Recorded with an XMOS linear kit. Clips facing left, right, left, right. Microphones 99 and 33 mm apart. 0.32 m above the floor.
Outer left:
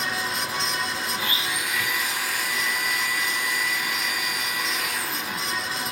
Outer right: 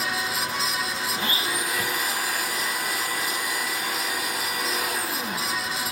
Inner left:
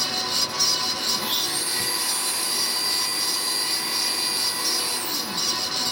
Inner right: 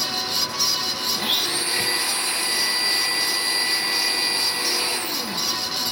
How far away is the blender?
About 1.6 m.